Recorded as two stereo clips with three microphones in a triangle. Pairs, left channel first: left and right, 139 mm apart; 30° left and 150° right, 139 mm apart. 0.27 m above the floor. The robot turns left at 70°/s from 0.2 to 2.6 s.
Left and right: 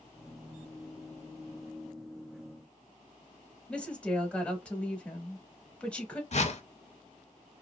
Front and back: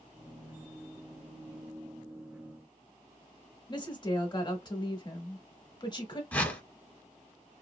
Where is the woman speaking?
15° left, 1.0 m.